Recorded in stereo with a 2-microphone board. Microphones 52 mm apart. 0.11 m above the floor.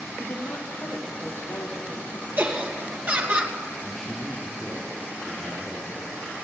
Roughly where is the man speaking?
Centre.